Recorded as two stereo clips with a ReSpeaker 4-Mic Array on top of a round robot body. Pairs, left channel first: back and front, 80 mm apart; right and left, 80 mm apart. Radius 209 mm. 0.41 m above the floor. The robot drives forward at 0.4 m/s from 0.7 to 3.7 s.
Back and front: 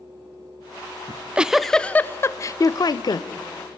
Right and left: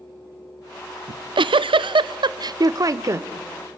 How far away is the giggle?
About 0.5 m.